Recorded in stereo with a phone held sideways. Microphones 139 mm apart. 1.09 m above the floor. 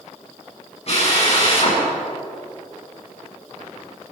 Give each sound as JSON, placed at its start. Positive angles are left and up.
{"t": 0.9, "sound": "a drill", "side_deg": 50, "distance_m": 7.5}